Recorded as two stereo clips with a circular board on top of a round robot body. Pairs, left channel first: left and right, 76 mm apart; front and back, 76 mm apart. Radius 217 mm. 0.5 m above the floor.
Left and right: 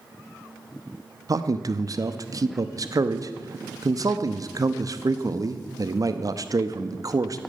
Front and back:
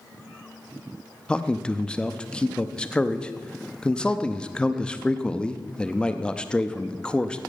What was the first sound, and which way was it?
A man speaking, 75° right.